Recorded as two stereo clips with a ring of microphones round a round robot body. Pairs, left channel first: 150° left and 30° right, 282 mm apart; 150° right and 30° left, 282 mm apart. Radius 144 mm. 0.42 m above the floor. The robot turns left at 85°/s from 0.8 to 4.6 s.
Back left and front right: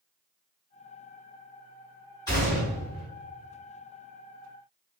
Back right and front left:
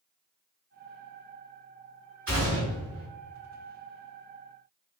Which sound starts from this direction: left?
A gunshot, at 2.3 s.